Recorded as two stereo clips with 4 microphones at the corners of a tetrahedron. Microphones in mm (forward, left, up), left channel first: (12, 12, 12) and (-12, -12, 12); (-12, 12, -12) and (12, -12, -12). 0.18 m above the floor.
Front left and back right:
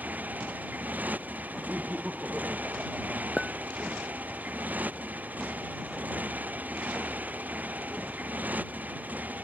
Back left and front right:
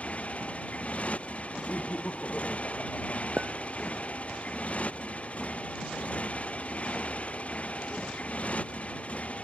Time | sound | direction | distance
0.0 | a motorcycle | 175° right | ?
1.7 | laughter | 170° left | ?
3.4 | a clink | 40° right | ?